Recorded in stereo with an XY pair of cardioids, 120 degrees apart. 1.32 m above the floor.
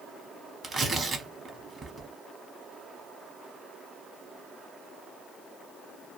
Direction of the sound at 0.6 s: 35° right.